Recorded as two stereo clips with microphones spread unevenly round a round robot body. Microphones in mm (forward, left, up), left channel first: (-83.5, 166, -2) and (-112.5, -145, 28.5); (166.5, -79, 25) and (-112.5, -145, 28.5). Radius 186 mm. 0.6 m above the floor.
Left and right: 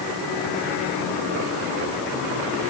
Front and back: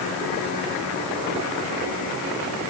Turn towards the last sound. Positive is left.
No sound to turn to.